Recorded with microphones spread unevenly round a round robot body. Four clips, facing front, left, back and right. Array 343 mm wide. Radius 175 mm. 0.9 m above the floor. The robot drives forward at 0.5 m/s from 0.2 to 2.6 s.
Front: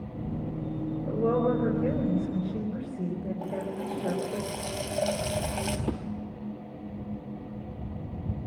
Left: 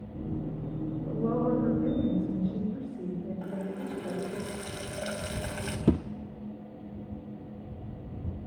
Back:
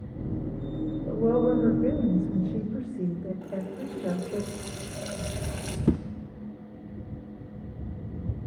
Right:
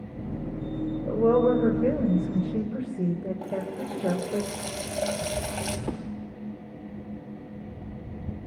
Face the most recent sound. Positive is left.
turn(degrees=140)